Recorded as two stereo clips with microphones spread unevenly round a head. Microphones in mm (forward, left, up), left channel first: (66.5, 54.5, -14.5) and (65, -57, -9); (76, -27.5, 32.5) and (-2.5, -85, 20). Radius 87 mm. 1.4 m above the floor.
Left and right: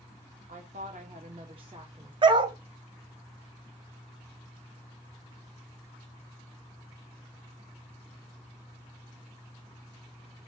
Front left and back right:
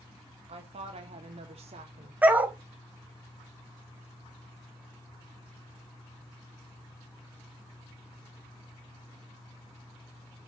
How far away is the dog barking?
About 1.7 m.